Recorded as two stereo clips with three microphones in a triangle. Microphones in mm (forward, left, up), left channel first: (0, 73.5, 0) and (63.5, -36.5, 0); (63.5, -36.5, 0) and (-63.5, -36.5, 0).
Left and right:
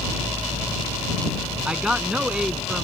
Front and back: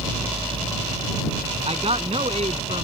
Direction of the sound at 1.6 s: 145° right.